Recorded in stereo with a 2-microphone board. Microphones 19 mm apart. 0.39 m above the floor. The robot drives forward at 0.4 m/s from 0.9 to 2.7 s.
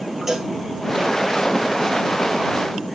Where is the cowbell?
20° right (ahead or behind), 1.9 m.